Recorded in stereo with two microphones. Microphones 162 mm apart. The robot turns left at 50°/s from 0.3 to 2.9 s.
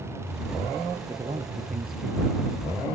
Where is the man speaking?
25° right; by 2.9 s 115° right.